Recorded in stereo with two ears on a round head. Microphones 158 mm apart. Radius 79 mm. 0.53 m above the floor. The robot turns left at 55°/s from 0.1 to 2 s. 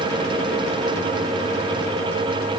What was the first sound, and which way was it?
Only background noise.